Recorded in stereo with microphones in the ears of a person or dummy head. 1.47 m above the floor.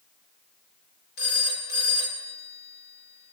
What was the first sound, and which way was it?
A phone ringing, 50° left (ahead or behind).